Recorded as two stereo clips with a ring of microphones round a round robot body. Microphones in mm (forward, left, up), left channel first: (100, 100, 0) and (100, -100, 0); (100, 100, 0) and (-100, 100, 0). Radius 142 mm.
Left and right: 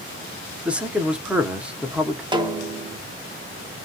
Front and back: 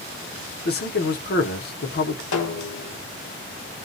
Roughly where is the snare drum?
Ahead.